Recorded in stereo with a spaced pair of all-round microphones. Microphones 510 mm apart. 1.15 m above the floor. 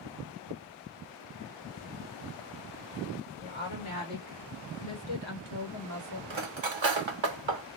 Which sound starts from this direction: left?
A woman speaking, at 3.4 s.